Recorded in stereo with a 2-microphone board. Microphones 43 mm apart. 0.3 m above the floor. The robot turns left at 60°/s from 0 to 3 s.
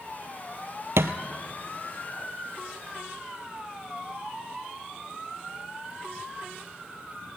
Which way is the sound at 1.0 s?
85° right.